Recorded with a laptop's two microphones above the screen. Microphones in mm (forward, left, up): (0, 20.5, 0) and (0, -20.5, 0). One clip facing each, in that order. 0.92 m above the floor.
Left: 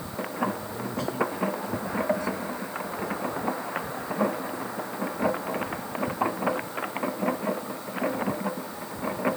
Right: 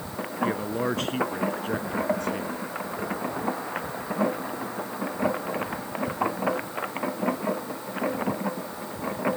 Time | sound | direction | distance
0.4 | a man speaking | 65° right (ahead or behind) | ?